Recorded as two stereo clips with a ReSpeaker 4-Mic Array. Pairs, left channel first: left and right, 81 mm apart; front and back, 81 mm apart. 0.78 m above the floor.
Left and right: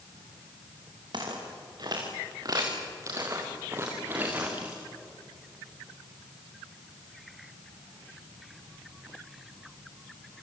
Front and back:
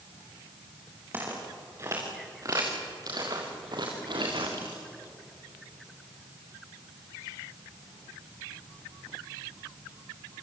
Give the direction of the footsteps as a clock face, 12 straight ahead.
4 o'clock.